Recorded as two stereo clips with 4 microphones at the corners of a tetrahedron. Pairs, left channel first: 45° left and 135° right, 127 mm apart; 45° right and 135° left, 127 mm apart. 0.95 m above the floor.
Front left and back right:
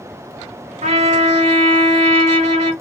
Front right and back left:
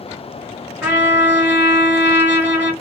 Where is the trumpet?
150° right, 1.6 m.